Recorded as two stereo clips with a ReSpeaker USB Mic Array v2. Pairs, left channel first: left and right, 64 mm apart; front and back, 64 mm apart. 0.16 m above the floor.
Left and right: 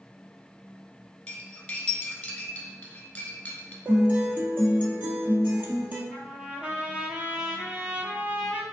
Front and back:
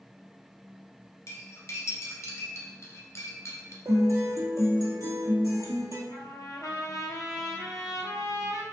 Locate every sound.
1.3 s cutlery clinking: 20° left, 1.2 m
3.9 s a guitar: 150° right, 1.1 m
6.1 s a trumpet: 20° right, 0.9 m